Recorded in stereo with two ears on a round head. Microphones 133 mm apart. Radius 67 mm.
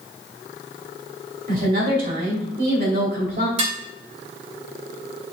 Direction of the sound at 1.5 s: 60° right (ahead or behind).